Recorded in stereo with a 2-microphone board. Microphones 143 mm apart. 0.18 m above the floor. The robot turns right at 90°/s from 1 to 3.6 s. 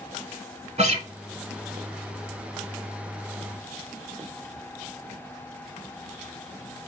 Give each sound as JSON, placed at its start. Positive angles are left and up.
{"t": 0.8, "sound": "a guitar", "side_deg": -50, "distance_m": 1.1}